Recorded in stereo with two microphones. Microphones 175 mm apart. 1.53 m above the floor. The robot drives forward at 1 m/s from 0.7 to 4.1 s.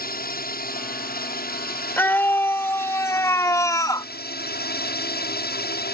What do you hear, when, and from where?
0.0 s a drone: 60° left (ahead or behind); by 5.9 s 65° left (ahead or behind)
2.0 s a scream: 10° left (ahead or behind); by 4.1 s 20° left (ahead or behind)